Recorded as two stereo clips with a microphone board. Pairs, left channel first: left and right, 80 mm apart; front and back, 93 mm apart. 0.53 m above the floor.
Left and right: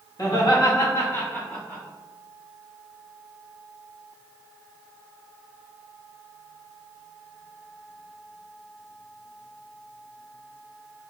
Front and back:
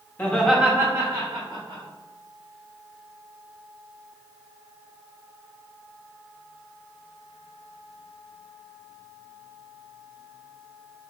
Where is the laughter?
65° left, 1.1 m; by 1.8 s 165° left, 1.9 m.